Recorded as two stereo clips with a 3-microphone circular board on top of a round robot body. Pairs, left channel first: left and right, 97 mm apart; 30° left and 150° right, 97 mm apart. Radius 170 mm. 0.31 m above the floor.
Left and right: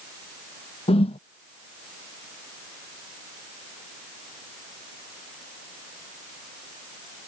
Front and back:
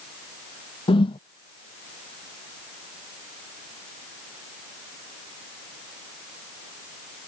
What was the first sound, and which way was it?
A whoosh, 65° left.